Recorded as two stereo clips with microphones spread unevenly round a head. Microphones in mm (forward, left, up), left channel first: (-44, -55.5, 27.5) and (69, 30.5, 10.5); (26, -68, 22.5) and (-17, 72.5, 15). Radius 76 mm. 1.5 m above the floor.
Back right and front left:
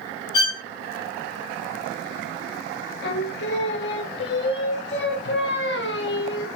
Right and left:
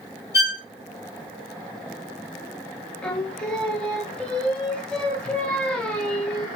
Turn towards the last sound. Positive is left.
turn(degrees=-155)